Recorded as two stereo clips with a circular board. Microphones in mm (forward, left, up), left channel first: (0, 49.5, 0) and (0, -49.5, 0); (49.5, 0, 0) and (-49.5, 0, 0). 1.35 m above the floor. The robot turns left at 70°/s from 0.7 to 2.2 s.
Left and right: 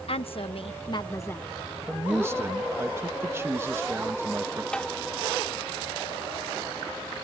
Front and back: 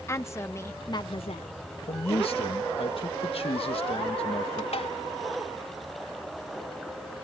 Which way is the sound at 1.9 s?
Straight ahead.